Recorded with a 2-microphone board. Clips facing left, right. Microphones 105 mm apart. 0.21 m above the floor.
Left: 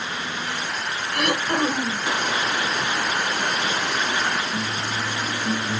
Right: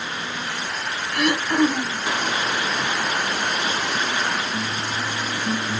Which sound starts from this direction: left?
Throat clearing, at 1.1 s.